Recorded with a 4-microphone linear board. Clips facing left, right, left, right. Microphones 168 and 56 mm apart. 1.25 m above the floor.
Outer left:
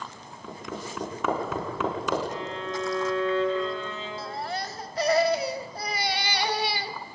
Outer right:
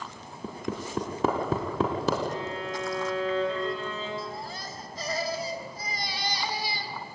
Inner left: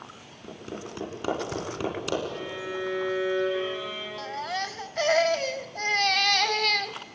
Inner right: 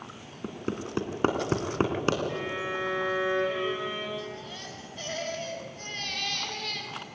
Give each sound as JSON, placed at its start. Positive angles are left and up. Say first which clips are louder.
{"t": 0.4, "sound": "hammering", "louder": "outer right 3 dB, inner right 4 dB", "side_deg": -35, "distance_m": 3.5}
{"t": 2.3, "sound": "a violin", "louder": "even, inner right 2 dB", "side_deg": -40, "distance_m": 7.5}
{"t": 4.2, "sound": "a baby crying", "louder": "outer left 4 dB, inner left 8 dB", "side_deg": 70, "distance_m": 0.9}